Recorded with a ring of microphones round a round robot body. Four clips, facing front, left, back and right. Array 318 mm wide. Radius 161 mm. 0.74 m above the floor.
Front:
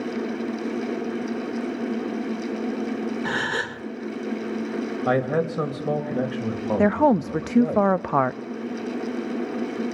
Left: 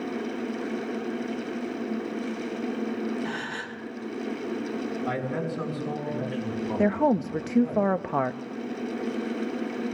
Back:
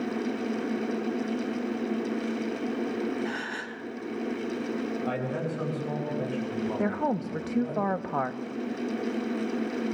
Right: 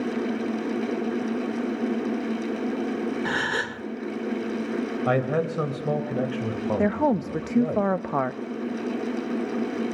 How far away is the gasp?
About 1.0 m.